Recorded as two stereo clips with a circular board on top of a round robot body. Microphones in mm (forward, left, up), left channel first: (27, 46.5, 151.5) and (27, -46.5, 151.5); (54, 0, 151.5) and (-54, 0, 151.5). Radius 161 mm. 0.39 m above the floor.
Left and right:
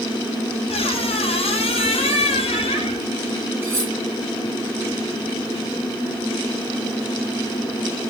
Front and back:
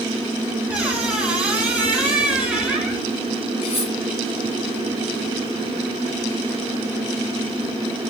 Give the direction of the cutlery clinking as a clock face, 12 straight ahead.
1 o'clock.